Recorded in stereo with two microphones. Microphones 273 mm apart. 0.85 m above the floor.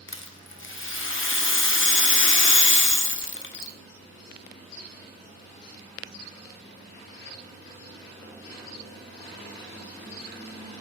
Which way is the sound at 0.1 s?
50° left (ahead or behind).